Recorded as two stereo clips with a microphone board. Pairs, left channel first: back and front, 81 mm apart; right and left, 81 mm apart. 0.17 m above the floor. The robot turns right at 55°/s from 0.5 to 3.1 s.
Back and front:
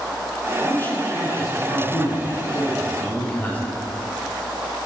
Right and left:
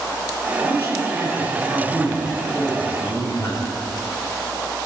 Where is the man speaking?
110° left, 4 m; by 3.8 s 115° right, 4 m.